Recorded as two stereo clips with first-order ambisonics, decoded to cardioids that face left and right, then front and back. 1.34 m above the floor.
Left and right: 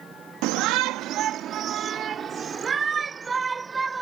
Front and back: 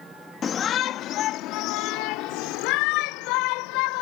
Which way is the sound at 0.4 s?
65° right.